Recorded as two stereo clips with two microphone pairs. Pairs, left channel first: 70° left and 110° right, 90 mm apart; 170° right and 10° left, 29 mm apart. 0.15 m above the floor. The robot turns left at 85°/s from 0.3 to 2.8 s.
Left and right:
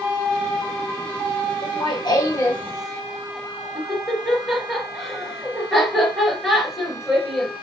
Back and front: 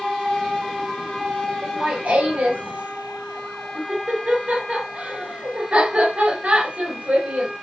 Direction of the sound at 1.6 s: 85° left.